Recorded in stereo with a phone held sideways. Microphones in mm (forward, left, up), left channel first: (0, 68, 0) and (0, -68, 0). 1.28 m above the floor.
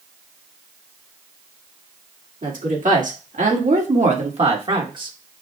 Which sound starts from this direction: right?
A woman speaking, at 2.4 s.